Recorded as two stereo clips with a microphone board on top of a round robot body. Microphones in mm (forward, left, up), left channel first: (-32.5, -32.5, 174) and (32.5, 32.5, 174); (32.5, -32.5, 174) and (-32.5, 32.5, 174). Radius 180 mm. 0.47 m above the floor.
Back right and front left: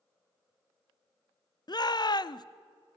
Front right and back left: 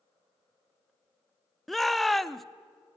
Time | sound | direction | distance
1.7 | a shout | 135° right | 0.9 m